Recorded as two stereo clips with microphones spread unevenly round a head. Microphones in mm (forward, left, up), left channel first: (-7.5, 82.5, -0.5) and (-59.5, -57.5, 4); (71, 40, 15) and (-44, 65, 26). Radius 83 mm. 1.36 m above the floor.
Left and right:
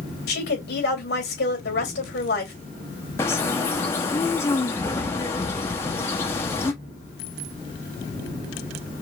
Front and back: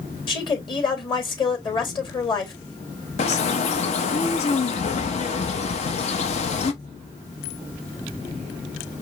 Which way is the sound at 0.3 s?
35° left.